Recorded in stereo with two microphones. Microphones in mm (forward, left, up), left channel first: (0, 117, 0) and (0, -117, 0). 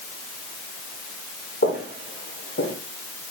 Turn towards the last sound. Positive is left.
turn(degrees=70)  # may be behind; listen again after turning